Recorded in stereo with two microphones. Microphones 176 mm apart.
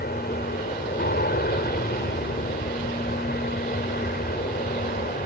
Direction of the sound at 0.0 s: 60° left (ahead or behind).